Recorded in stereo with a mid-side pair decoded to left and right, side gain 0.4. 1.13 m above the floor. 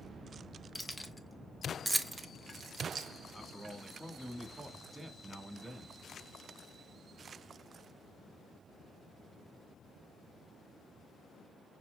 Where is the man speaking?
15° right, 1.6 m.